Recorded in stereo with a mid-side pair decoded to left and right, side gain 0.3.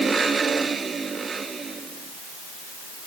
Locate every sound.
Only background noise.